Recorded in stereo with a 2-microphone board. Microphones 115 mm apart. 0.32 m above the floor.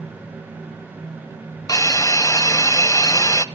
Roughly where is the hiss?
Left.